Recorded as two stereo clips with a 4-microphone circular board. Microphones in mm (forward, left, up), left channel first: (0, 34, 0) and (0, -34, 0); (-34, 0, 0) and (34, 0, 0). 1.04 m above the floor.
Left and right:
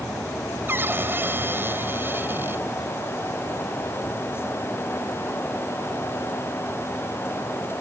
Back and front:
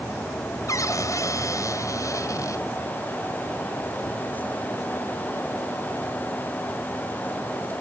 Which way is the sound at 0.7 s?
145° right.